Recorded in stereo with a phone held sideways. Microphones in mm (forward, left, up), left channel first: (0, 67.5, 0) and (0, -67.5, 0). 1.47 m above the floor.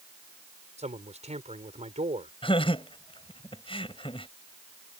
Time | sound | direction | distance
0.8 | a man speaking | 55° right (ahead or behind) | ?
2.4 | laughter | 40° left (ahead or behind) | ?